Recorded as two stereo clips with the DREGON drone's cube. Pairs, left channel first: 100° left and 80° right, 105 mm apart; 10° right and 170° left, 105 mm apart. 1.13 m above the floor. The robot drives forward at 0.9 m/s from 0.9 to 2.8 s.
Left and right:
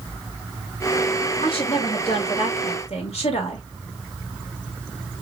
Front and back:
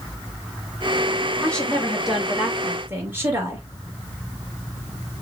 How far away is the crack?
No crack in this recording.